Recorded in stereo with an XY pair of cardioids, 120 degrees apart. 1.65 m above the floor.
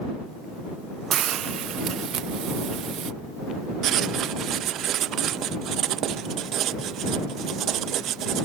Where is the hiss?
60° right.